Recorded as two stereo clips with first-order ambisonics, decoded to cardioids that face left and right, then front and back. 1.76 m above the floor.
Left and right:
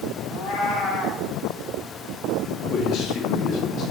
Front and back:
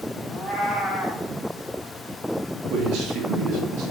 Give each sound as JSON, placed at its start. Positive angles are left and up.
{"t": 0.3, "sound": "a cat meowing", "azimuth_deg": 95, "distance_m": 4.0}
{"t": 2.7, "sound": "a man speaking", "azimuth_deg": 140, "distance_m": 3.0}